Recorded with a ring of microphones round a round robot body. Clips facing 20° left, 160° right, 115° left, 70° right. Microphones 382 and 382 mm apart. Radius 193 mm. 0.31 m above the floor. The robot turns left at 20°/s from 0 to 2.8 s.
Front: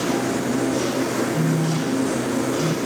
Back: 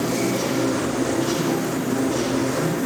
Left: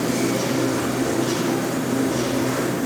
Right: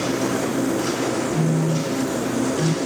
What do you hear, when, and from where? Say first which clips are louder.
1.3 s a phone buzzing: even, even; 35° right, 1.0 m; by 2.8 s 60° right, 1.0 m